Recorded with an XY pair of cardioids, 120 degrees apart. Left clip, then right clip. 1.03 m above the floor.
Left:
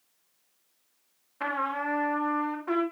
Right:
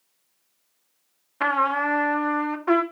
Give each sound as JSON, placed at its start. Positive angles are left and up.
{"t": 1.4, "sound": "a trumpet", "azimuth_deg": -45, "distance_m": 2.0}